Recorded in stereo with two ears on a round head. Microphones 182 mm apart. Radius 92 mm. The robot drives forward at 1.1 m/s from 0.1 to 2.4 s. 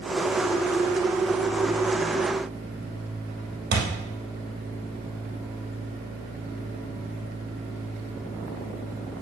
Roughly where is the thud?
Right.